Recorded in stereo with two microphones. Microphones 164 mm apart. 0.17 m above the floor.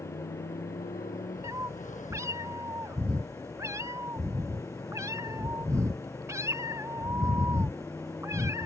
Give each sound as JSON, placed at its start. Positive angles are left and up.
{"t": 0.0, "sound": "a motorcycle", "side_deg": 65}
{"t": 1.4, "sound": "a cat meowing", "side_deg": -20}